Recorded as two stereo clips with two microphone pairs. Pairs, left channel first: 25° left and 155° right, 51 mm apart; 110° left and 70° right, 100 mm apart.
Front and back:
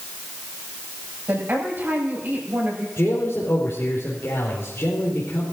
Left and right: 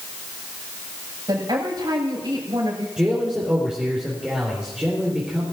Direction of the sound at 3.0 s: 10° left.